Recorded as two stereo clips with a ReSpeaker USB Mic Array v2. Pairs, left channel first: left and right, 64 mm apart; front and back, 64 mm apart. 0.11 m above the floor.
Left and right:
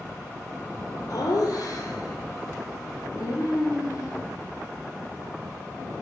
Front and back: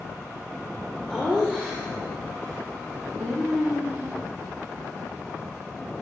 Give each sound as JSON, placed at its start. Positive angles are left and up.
{"t": 1.1, "sound": "laughter", "azimuth_deg": 100, "distance_m": 3.5}